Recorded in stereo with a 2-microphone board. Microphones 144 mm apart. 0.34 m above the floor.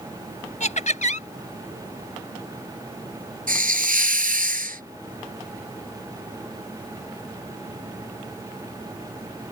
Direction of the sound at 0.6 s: 55° left (ahead or behind).